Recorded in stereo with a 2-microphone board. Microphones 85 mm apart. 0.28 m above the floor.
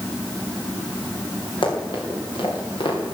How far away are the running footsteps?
About 6 m.